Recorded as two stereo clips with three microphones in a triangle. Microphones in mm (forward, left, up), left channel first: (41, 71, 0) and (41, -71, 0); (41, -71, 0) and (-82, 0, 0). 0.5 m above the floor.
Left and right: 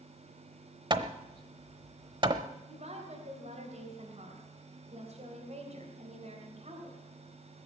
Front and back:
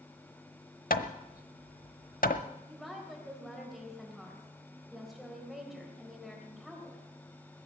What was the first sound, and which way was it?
Hammering, 30° right.